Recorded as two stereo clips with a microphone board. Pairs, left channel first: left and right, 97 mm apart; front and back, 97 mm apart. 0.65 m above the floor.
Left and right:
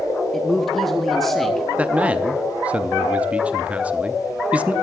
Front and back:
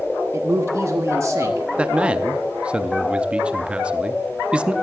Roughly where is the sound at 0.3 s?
Behind.